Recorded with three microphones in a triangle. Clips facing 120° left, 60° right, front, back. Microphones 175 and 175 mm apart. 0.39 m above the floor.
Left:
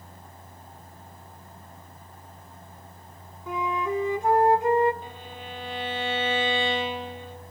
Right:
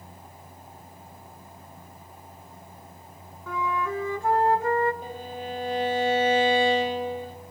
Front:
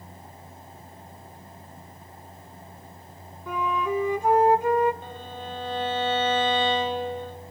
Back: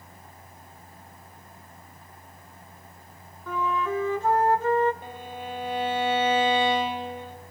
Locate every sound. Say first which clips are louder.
3.5 s a flute: left 1 dB, front 1 dB; 65° left, 1.3 m
5.0 s a violin: right 6 dB, even; 105° right, 1.4 m